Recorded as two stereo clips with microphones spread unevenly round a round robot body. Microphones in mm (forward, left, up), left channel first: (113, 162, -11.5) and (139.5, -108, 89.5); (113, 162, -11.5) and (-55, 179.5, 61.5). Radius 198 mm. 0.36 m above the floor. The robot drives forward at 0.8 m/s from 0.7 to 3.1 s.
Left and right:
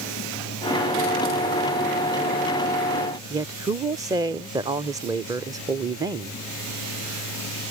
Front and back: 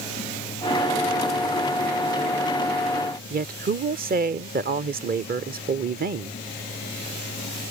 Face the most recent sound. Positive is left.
turn(degrees=170)